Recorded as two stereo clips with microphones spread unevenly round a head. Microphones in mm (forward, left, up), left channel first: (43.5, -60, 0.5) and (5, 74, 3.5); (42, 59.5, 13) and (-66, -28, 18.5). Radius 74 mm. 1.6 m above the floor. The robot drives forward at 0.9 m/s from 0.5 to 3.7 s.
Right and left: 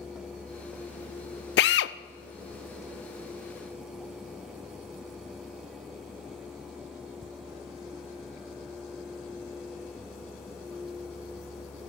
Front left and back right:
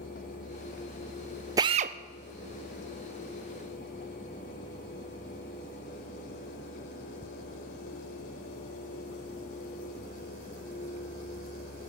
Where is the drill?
70° right, 0.6 m; by 1.9 s 105° right, 0.6 m.